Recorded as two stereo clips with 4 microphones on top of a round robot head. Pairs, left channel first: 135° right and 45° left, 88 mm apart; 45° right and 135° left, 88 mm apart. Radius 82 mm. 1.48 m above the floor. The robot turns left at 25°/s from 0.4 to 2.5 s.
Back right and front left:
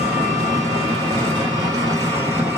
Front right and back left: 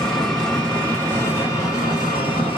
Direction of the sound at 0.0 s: 35° left.